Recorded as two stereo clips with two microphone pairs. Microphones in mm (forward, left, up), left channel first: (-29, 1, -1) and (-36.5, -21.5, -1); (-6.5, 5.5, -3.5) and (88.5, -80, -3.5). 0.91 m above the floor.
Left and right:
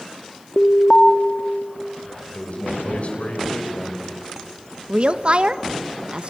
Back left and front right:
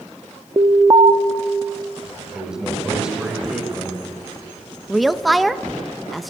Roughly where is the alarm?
Ahead.